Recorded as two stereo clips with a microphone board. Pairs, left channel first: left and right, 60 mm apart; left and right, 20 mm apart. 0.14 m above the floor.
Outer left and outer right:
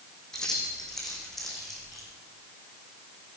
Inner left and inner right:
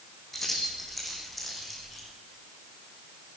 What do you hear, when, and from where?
0.3 s keys jangling: 10° left (ahead or behind), 6.5 m; by 2.1 s centre (ahead or behind), 6.5 m